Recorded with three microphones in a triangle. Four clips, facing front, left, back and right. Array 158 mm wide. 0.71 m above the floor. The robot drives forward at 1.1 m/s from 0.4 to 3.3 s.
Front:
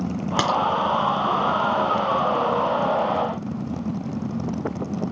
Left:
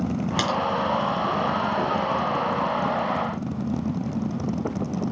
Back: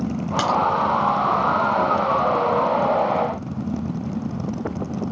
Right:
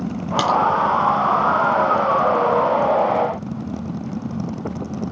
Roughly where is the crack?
Ahead.